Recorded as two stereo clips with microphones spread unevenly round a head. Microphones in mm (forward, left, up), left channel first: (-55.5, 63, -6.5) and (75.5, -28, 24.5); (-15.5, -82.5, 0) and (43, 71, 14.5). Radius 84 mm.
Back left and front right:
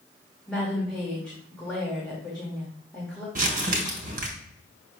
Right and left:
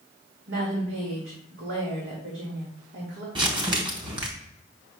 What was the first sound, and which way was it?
A woman speaking, 60° left.